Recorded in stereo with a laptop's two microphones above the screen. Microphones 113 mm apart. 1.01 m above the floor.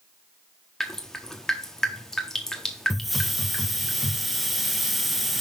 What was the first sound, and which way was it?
Dripping, 5° left (ahead or behind).